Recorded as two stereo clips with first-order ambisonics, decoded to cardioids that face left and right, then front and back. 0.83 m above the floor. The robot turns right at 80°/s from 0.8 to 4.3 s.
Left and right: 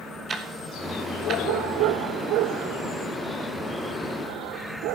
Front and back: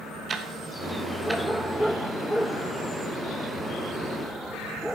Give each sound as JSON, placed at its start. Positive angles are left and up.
{"t": 0.3, "sound": "ticking", "azimuth_deg": -140, "distance_m": 0.9}